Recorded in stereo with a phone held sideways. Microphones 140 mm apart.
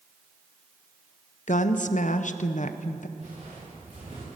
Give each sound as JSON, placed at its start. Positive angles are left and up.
{"t": 1.5, "sound": "a woman speaking", "side_deg": 65, "distance_m": 0.7}
{"t": 3.2, "sound": "footsteps", "side_deg": -55, "distance_m": 5.5}